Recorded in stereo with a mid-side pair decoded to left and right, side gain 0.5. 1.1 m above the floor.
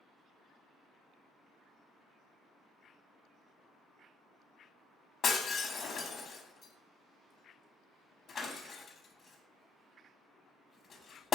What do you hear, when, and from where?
5.2 s breaking glass: 45° left, 0.7 m